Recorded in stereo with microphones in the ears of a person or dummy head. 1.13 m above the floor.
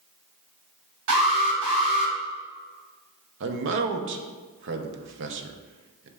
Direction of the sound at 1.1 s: 80° right.